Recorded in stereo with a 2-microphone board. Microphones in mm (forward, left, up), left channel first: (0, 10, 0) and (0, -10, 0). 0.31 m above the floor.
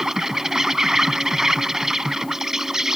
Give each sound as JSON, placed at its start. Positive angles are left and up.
{"t": 0.0, "sound": "an insect", "side_deg": -30}